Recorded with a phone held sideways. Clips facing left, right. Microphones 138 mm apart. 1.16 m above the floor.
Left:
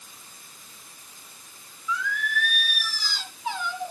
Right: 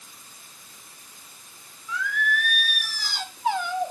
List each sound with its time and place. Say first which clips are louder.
1.9 s singing: right 2 dB; 55° right (ahead or behind), 1.6 m